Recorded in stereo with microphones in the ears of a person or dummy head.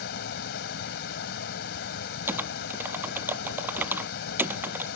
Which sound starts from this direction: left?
A fan, at 0.0 s.